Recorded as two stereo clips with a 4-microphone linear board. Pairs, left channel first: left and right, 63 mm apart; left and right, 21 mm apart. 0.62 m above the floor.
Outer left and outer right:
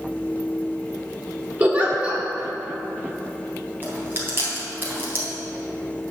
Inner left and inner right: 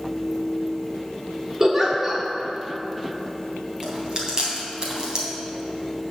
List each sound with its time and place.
1.6 s a giggle: 20° right (ahead or behind), 1.5 m
3.8 s chewing: 35° right (ahead or behind), 2.5 m